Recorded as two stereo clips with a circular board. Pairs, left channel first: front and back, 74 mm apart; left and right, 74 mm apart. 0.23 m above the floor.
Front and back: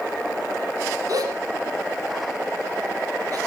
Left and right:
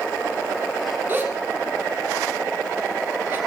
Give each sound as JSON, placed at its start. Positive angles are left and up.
{"t": 1.1, "sound": "a gasp", "azimuth_deg": -155, "distance_m": 4.0}